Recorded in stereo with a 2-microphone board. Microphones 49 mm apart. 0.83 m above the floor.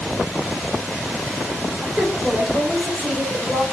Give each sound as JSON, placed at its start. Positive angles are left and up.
{"t": 1.8, "sound": "a woman speaking", "side_deg": -20, "distance_m": 3.5}